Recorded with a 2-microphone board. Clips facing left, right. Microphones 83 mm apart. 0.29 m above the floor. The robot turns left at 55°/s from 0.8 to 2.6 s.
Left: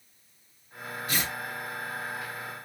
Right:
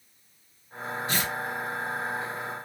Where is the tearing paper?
30° right (ahead or behind), 1.7 m.